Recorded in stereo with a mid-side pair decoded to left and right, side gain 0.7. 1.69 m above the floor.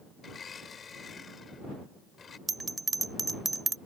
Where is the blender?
25° left.